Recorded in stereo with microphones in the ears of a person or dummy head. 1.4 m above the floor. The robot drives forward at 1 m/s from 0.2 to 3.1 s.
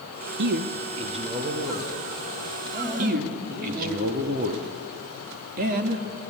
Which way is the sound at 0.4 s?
60° right (ahead or behind).